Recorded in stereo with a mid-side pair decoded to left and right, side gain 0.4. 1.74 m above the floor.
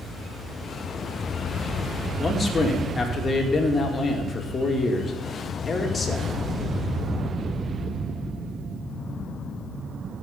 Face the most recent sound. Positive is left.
turn(degrees=40)